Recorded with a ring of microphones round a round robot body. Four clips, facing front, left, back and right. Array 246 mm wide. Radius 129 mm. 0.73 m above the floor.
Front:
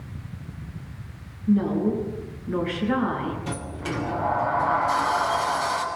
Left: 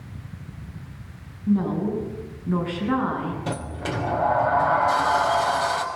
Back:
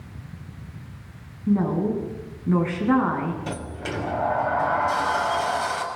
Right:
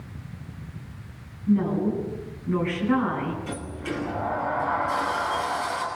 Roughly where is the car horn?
No car horn in this recording.